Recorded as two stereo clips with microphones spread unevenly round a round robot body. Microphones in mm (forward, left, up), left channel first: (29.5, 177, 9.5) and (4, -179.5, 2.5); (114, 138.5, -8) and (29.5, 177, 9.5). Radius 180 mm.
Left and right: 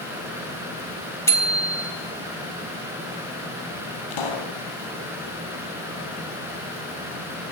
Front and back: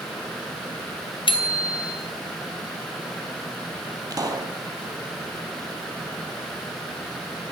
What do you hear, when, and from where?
1.3 s a bicycle bell: 5° left, 2.5 m
4.1 s a pop: 105° left, 3.5 m